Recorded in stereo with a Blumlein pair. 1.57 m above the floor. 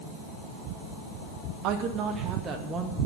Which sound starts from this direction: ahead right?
A woman speaking, at 1.6 s.